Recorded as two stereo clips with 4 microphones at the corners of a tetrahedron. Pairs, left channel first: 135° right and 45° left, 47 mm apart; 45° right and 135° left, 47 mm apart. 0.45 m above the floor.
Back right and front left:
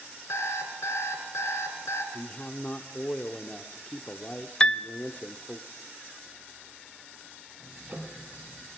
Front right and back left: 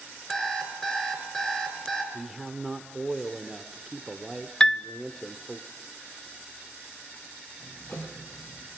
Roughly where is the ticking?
Ahead.